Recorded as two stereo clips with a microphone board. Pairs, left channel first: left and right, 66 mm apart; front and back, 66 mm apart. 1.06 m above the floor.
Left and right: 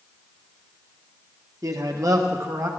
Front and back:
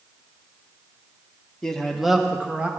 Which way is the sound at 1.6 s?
80° right.